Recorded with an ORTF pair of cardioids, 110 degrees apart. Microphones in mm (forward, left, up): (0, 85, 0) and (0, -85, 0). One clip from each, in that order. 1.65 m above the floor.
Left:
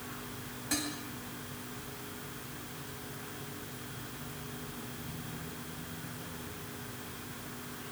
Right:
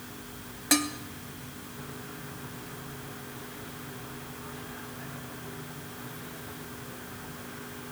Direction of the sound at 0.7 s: 65° right.